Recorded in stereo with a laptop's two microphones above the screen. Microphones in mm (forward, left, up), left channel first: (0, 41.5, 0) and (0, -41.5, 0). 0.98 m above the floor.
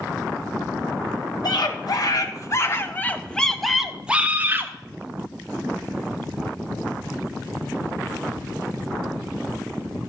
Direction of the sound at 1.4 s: 60° left (ahead or behind).